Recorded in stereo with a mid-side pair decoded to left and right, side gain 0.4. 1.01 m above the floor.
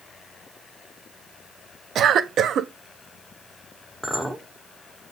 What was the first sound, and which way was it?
A cough, 65° right.